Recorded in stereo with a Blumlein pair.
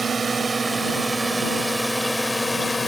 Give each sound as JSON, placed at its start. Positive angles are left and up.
{"t": 0.0, "sound": "a drone", "azimuth_deg": -15}